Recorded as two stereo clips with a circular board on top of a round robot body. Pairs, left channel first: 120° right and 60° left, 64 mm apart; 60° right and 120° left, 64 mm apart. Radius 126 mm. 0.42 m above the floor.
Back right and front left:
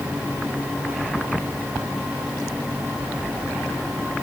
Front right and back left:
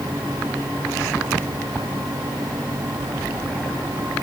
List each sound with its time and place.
Only background noise.